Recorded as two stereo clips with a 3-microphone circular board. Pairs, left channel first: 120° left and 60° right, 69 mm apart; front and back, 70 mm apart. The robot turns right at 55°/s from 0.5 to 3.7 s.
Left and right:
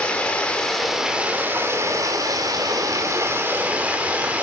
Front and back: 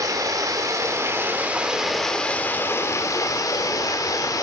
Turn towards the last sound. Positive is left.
turn(degrees=5)